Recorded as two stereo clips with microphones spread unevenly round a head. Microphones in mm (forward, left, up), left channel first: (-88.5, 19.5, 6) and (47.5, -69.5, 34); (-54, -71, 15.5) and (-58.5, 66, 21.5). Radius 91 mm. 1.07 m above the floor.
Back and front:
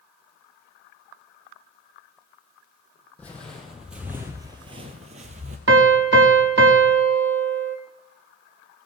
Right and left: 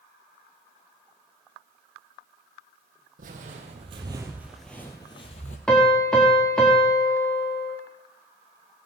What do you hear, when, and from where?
3.2 s footsteps: 60° left, 2 m; by 5.6 s 50° right, 1.7 m
5.7 s a piano: straight ahead, 1.2 m